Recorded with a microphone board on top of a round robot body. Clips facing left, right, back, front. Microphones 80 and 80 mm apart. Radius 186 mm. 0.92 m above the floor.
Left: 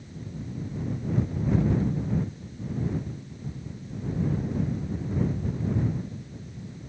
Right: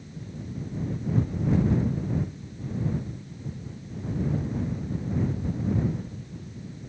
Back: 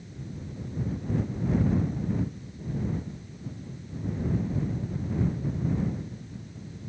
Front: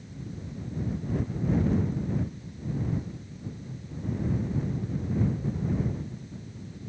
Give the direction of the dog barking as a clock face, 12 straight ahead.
I don't hear a dog barking.